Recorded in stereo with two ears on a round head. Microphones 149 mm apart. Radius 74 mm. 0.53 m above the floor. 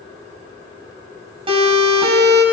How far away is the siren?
About 5.5 m.